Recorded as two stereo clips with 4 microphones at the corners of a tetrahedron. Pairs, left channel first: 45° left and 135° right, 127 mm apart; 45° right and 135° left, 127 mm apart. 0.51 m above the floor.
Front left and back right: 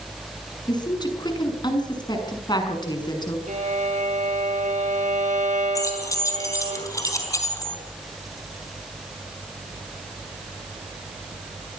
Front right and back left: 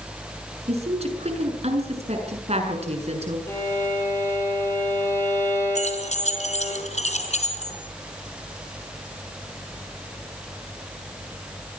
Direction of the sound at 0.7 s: 100° left.